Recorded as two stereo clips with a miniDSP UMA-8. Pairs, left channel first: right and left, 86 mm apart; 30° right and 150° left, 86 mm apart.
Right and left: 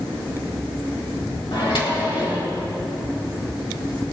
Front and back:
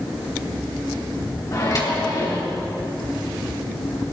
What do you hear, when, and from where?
1.5 s a microwave: 70° right, 3 m